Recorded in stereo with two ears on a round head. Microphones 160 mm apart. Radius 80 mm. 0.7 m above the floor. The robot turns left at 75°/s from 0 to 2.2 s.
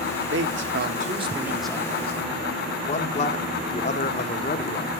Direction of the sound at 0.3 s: 80° right.